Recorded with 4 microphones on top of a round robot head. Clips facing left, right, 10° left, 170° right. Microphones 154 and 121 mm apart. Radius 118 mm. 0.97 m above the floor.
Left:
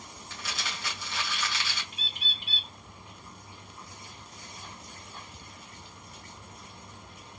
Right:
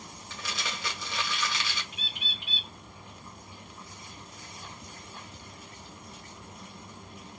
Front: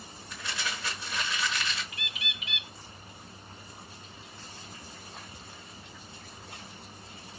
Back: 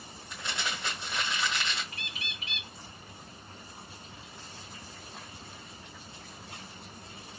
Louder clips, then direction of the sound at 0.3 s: Right 2 dB, back 1 dB; 95° right.